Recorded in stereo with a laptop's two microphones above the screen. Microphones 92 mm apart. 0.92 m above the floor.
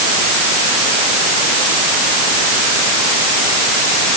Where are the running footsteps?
No running footsteps in this recording.